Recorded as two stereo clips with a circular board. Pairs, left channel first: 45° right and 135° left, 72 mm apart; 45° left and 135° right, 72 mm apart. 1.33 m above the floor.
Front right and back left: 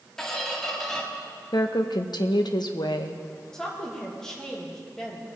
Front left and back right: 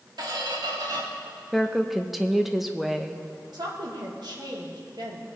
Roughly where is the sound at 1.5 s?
Ahead right.